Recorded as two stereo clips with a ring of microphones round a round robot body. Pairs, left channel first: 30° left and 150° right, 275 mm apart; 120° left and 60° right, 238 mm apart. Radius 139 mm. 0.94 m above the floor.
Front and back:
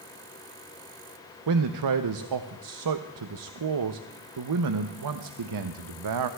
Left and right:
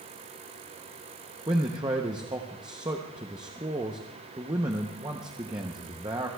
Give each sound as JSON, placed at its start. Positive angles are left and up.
{"t": 1.5, "sound": "a man speaking", "azimuth_deg": -135, "distance_m": 0.6}